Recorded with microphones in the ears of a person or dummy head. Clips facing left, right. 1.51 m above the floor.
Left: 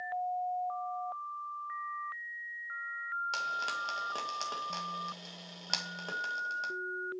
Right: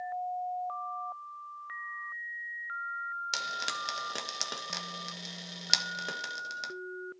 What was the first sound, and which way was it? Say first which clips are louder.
Frying: even; 25° right (ahead or behind).